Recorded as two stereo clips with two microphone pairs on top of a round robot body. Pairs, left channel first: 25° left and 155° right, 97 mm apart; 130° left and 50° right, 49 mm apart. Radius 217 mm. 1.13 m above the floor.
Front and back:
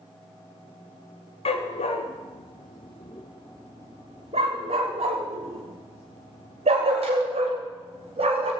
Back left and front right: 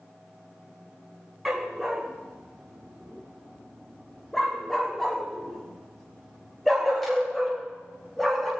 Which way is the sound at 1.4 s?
40° left.